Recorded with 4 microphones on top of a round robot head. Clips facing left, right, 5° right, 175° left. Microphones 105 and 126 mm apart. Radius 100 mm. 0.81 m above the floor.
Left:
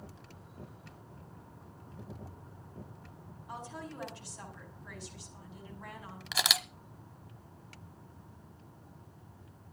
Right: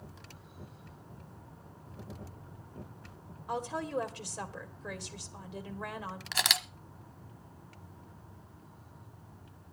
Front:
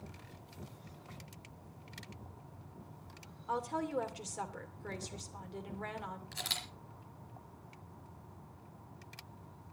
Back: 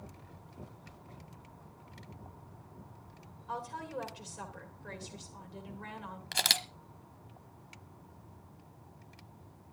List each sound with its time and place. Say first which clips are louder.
3.5 s a woman speaking: right 9 dB, front 4 dB; 55° right, 2 m
6.3 s a camera shutter: left 1 dB, back 8 dB; 170° left, 0.7 m